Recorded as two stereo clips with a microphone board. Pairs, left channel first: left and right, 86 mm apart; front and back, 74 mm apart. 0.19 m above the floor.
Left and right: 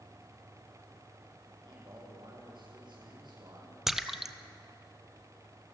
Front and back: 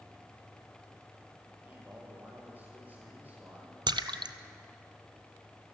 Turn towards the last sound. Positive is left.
turn(degrees=-175)